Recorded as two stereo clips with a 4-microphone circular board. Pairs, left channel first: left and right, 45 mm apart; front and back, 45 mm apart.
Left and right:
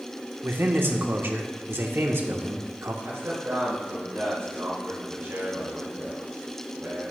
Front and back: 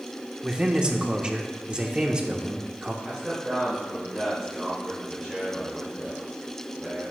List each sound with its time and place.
0.4 s a man speaking: 115° right, 1.3 m
3.0 s a man speaking: 95° right, 5.5 m